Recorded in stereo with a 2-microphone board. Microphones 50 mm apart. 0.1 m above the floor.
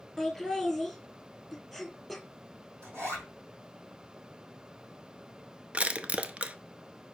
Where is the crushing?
25° right (ahead or behind), 0.6 m.